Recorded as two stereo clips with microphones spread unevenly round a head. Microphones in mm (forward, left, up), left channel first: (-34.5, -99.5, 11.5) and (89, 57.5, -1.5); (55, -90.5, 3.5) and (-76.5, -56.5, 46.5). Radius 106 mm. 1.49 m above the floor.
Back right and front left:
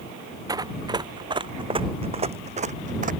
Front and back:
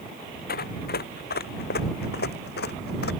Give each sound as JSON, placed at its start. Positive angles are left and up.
{"t": 0.5, "sound": "running footsteps", "azimuth_deg": -20}